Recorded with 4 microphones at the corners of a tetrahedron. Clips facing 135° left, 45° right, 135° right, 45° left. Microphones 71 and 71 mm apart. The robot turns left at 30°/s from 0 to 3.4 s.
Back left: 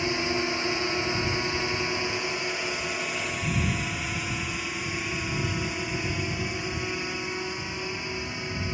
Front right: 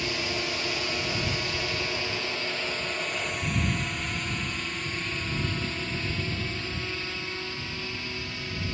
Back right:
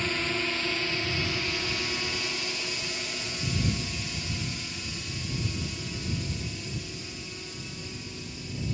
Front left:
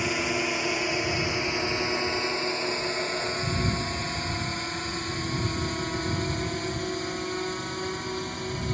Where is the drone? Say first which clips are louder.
Back left 4 dB, front left 3 dB; 110° left; by 8.7 s 65° left.